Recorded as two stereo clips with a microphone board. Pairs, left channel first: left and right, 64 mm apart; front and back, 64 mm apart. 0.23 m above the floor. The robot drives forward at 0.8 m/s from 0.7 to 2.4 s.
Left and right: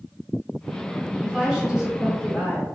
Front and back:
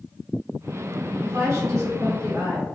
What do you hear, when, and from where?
1.2 s a woman speaking: 165° right, 1.3 m; by 2.6 s 175° right, 2 m